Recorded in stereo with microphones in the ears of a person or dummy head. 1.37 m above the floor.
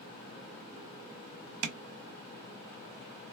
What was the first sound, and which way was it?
Tapping, 75° right (ahead or behind).